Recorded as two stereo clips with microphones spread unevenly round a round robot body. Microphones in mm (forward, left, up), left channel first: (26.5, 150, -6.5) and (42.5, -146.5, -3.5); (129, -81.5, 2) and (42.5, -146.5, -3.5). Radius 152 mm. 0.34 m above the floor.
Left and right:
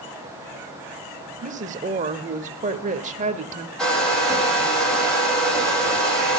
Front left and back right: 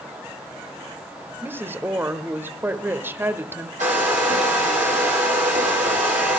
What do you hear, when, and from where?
1.4 s a woman speaking: 115° right, 1.0 m
3.8 s a hair dryer: straight behind, 5.5 m